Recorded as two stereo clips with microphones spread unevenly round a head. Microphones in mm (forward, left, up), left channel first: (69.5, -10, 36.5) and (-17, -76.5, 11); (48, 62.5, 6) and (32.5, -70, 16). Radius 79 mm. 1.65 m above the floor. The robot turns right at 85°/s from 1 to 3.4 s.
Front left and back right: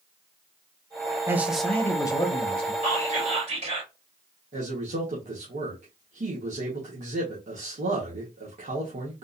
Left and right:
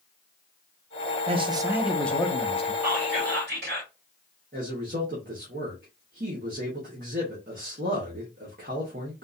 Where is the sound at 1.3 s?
70° right, 0.9 m; by 2.7 s 55° left, 0.9 m.